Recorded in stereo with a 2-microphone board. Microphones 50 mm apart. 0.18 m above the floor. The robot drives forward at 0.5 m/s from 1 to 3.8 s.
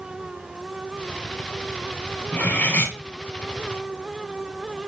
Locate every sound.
2.3 s cutlery clinking: 35° left (ahead or behind), 0.7 m